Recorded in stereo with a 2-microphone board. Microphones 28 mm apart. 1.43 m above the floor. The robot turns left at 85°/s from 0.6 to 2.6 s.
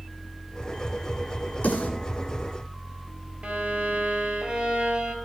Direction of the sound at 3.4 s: 55° right (ahead or behind).